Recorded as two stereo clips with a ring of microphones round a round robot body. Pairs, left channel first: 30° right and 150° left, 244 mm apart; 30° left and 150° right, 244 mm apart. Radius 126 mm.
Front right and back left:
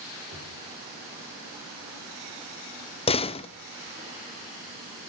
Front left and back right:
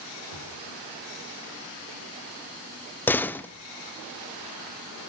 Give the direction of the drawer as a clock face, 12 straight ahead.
5 o'clock.